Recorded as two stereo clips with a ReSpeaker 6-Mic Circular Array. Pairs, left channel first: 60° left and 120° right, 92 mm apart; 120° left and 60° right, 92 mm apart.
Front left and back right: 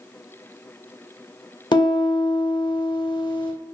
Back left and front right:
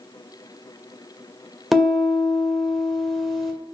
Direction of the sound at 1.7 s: 30° left.